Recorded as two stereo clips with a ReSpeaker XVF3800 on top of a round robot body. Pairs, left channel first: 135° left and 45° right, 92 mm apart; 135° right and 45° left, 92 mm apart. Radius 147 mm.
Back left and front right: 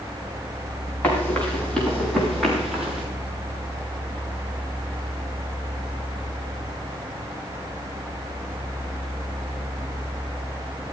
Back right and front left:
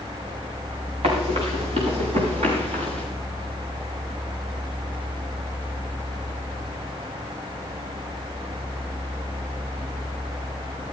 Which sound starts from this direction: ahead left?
Running footsteps, at 1.0 s.